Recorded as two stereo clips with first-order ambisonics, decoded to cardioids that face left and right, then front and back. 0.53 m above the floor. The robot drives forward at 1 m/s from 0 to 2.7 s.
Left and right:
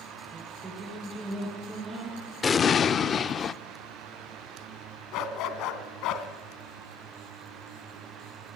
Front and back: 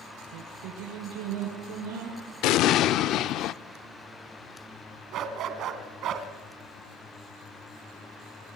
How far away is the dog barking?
About 1.9 m.